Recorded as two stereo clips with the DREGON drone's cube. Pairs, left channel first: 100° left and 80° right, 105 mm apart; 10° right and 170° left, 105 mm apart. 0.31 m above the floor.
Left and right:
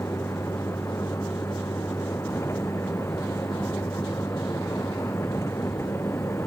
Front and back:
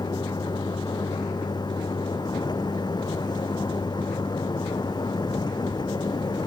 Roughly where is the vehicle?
Ahead left.